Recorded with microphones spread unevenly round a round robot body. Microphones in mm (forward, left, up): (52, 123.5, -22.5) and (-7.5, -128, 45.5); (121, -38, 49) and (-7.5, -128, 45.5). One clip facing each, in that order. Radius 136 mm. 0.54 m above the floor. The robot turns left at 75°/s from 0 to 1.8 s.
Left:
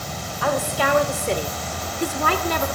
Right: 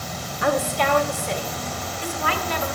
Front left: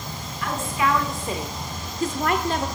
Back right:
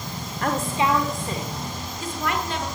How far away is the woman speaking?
About 1.4 m.